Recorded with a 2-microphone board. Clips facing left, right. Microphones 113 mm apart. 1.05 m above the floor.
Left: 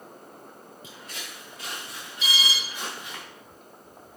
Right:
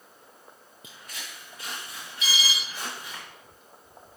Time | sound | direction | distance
0.8 | footsteps | 30° left (ahead or behind) | 3.5 m
2.2 | an alarm | 30° left (ahead or behind) | 4 m